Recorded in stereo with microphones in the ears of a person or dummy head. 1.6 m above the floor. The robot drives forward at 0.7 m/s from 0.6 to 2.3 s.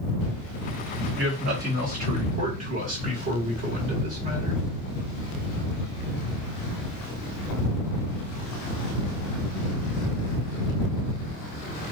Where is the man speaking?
60° right (ahead or behind), 1.4 m; by 4.6 s 40° right (ahead or behind), 1.9 m.